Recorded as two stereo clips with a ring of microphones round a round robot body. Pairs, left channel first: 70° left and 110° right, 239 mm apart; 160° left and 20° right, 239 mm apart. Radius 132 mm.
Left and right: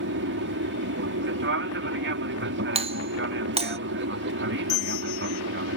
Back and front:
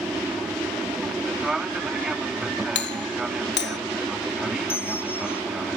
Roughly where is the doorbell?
Behind.